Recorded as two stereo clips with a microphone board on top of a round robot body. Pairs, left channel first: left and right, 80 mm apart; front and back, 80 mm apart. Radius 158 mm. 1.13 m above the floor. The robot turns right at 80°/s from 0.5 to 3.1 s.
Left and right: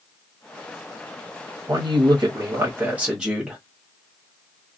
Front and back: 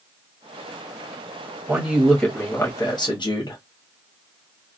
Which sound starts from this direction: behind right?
A man speaking, at 1.7 s.